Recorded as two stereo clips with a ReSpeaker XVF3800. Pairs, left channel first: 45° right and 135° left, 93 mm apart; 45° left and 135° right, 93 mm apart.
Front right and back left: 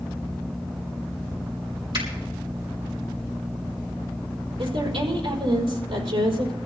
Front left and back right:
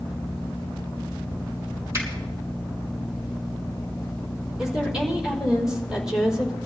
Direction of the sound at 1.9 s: 165° left.